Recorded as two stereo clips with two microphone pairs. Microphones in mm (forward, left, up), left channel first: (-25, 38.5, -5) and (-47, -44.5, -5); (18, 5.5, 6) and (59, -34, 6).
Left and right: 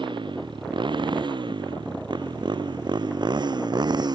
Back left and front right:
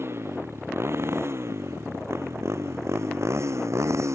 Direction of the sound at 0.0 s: 85° right.